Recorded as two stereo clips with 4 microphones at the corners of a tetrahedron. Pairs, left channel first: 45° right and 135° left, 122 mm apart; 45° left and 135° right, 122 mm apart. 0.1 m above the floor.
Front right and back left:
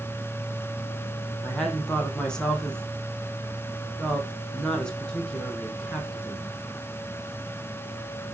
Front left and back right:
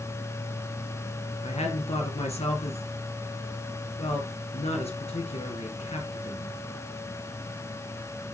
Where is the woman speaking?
35° left, 2.5 m.